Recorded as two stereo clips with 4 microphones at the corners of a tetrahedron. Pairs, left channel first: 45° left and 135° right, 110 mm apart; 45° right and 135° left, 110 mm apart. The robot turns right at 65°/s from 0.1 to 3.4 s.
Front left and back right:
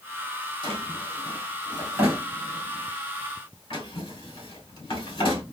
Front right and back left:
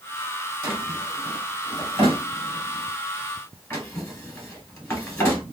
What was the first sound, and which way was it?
A drawer, 165° right.